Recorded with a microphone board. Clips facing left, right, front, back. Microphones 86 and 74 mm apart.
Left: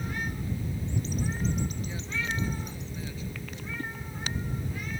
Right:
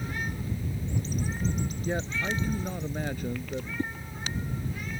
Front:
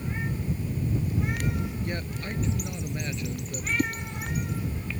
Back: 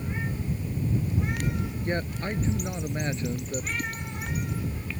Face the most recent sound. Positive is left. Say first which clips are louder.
# right 5 dB, front 6 dB
turn(degrees=-25)